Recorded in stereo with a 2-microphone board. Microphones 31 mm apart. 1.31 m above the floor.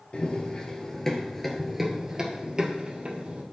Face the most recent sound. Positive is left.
turn(degrees=-40)  # may be behind; listen again after turning